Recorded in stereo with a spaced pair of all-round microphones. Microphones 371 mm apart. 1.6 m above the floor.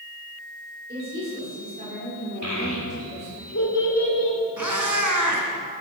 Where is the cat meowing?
55° right (ahead or behind), 2.5 m.